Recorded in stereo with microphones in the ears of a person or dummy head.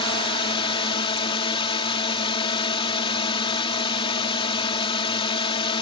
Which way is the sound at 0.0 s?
30° left (ahead or behind).